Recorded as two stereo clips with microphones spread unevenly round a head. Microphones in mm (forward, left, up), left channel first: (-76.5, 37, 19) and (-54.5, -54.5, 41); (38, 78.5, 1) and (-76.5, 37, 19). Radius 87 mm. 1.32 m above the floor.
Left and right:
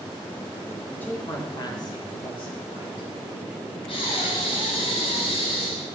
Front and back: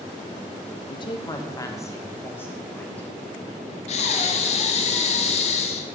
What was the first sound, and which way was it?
A woman speaking, 35° left.